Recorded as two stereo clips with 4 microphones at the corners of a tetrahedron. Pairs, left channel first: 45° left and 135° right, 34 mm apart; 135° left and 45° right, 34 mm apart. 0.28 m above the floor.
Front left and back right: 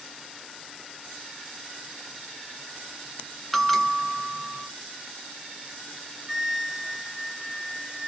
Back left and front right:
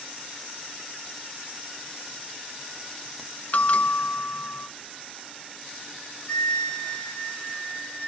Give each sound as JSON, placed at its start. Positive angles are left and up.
{"t": 3.5, "sound": "a bell", "azimuth_deg": 125, "distance_m": 0.7}
{"t": 6.3, "sound": "a flute", "azimuth_deg": 155, "distance_m": 2.0}